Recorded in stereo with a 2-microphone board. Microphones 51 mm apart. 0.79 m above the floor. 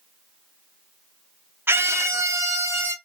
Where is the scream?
45° right (ahead or behind), 0.5 m; by 2.9 s 65° right (ahead or behind), 1.2 m.